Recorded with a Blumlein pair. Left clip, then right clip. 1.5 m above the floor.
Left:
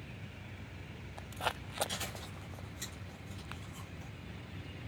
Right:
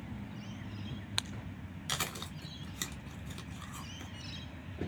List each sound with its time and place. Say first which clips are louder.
1.9 s chewing: right 4 dB; 45° right, 0.9 m